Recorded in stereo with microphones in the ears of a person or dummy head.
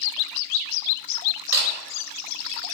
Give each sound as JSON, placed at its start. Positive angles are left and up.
{"t": 1.5, "sound": "a camera shutter", "side_deg": -15, "distance_m": 1.0}